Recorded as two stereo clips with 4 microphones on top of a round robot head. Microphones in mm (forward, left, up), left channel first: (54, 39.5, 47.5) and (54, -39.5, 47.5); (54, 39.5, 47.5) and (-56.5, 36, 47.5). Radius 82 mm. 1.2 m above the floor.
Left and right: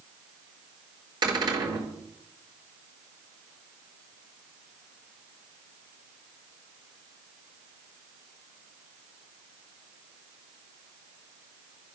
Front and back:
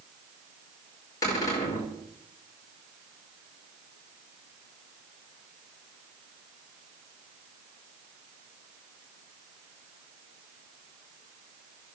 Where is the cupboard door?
65° right, 3.5 m.